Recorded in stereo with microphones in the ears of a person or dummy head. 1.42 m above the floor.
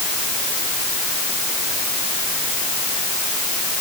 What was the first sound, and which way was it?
Only background noise.